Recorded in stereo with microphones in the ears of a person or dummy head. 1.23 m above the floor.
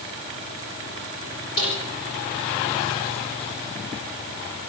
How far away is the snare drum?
About 9.5 m.